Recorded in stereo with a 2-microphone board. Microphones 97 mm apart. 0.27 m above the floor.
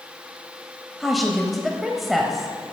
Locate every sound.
1.0 s a woman speaking: centre (ahead or behind), 1.0 m